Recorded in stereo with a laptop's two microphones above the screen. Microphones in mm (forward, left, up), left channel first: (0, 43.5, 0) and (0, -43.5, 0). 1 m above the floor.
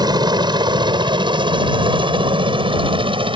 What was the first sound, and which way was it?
A helicopter, 50° right (ahead or behind).